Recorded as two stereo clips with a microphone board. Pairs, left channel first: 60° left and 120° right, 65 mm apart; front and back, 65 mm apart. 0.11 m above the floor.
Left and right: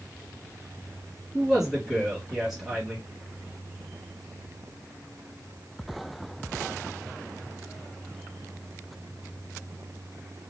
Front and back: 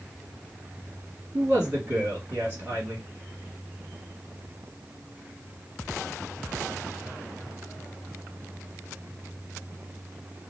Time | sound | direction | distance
1.3 | a man speaking | 145° left | 2 m